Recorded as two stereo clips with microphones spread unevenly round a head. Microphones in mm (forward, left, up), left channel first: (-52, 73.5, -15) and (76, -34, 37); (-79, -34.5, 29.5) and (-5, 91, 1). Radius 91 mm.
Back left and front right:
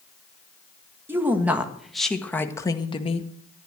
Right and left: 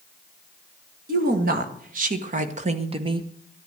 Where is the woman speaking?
40° left, 1.9 m; by 3.3 s 110° left, 1.2 m.